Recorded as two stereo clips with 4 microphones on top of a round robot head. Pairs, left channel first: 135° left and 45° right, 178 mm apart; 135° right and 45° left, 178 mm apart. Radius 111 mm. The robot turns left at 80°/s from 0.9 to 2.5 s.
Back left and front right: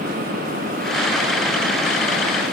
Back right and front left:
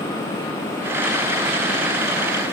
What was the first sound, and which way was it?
Only background noise.